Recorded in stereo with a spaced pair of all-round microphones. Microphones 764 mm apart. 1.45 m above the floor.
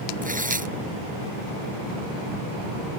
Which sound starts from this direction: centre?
Tearing paper, at 0.2 s.